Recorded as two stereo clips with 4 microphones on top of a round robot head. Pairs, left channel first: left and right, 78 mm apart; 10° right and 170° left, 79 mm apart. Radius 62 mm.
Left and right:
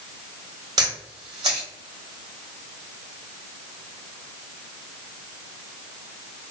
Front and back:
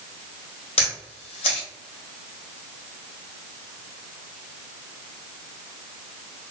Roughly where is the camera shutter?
Ahead right.